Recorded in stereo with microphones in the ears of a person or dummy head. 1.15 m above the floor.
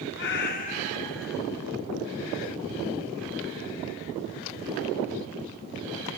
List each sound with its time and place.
0.2 s a cat meowing: 55° left (ahead or behind), 0.8 m; by 1.4 s 5° right (ahead or behind), 0.6 m